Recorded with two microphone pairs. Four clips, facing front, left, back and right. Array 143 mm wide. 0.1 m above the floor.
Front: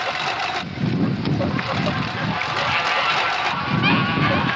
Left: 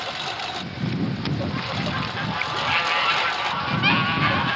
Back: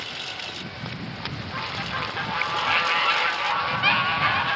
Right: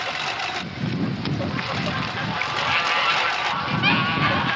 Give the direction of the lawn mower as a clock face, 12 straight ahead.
12 o'clock.